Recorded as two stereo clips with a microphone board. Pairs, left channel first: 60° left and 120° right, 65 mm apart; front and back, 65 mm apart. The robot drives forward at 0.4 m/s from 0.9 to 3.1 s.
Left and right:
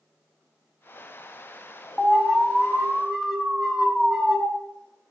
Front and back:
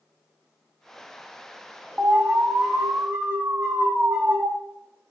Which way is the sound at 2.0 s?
140° left.